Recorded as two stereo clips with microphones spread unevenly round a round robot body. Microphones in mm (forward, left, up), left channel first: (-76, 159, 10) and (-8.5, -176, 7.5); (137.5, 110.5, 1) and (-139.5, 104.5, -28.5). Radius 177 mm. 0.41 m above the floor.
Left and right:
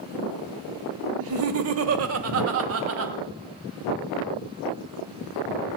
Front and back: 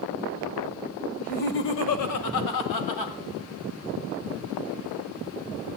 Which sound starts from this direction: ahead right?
Laughter, at 1.2 s.